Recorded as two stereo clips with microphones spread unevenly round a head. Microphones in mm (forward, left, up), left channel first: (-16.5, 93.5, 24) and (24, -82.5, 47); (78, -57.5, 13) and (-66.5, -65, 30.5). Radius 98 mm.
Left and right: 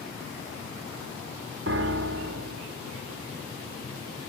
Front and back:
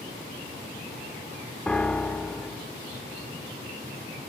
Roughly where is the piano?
Right.